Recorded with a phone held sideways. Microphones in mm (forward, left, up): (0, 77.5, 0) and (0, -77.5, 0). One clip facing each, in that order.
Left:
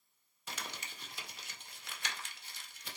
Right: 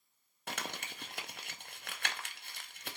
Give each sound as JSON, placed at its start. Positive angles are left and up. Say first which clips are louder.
{"t": 0.5, "sound": "crumpling", "louder": "right 4 dB", "side_deg": -60, "distance_m": 0.6}